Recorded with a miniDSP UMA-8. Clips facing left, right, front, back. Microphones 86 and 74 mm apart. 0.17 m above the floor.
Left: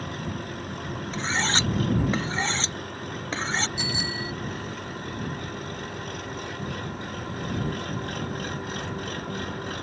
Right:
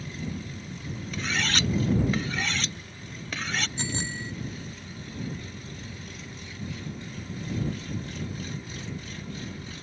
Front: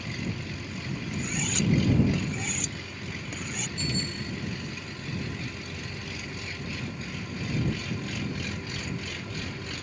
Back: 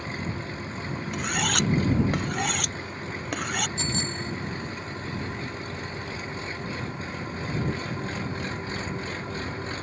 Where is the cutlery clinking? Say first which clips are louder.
Left 2 dB, back 5 dB; 150° left.